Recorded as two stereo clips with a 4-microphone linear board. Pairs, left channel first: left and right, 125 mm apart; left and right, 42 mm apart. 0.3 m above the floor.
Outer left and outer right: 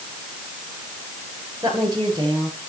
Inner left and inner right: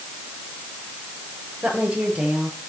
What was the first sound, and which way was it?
A woman speaking, 30° right (ahead or behind).